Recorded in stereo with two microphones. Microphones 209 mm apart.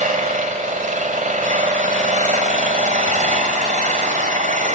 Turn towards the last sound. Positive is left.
turn(degrees=-40)  # may be behind; listen again after turning